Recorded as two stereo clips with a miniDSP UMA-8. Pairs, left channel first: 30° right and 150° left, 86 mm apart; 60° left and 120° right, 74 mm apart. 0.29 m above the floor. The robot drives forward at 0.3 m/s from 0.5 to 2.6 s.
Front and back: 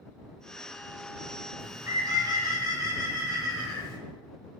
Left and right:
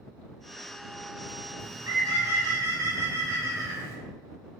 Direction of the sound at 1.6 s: 160° right.